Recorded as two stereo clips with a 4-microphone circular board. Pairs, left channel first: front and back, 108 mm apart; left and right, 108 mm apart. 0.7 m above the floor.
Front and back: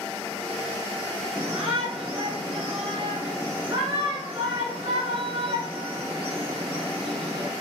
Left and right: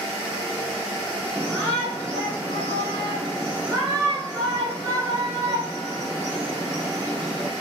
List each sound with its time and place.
1.4 s a shout: 145° right, 3 m